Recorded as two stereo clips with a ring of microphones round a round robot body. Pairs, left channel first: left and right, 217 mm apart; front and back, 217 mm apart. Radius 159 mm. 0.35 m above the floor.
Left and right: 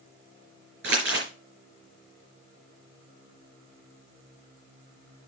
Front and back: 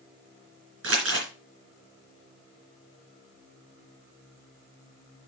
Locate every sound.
0.8 s crumpling: 145° right, 4 m